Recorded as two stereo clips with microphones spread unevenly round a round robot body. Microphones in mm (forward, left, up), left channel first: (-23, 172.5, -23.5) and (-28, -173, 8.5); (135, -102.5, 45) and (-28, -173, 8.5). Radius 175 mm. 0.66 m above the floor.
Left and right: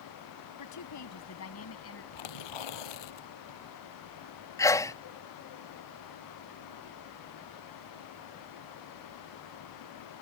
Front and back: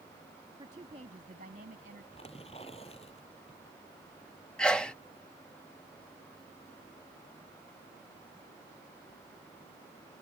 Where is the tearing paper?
95° left.